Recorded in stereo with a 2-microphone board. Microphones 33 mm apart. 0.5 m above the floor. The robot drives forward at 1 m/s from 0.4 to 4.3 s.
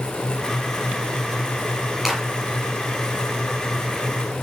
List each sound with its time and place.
2.0 s a clap: centre (ahead or behind), 6.5 m